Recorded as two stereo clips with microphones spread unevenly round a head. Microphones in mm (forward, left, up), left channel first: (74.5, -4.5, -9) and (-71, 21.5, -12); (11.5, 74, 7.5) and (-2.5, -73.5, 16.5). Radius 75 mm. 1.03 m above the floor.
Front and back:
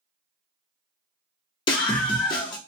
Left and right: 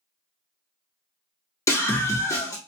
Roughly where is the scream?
Ahead left.